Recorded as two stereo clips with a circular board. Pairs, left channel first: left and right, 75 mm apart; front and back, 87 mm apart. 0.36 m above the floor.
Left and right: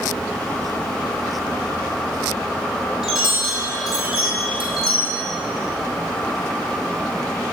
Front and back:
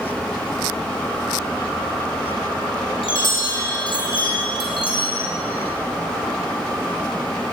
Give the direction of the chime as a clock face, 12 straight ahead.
12 o'clock.